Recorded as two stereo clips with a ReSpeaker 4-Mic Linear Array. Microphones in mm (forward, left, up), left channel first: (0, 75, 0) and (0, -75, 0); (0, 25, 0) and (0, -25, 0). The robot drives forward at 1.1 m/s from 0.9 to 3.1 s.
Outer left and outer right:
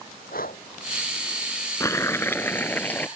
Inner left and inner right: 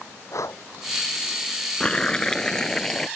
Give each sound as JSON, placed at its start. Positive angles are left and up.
{"t": 0.3, "sound": "breathing", "side_deg": 75}
{"t": 1.8, "sound": "boiling", "side_deg": 20}